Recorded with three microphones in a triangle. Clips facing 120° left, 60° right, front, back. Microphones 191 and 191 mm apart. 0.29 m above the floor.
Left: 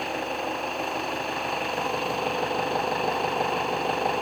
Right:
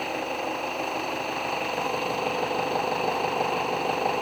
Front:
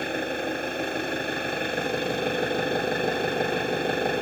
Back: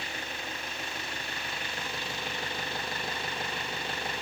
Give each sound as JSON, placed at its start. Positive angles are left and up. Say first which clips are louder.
{"t": 0.0, "sound": "an engine running", "louder": "even, front 13 dB", "azimuth_deg": 30}